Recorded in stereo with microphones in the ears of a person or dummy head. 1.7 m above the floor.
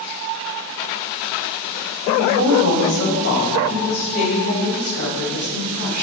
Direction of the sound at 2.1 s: 80° left.